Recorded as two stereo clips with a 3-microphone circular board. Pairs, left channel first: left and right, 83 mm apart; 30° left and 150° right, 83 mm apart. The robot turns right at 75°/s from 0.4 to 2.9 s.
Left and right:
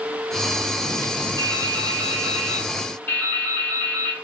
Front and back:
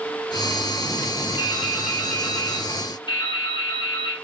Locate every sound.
1.4 s dripping: 95° right, 4.5 m; by 4.1 s 20° left, 4.5 m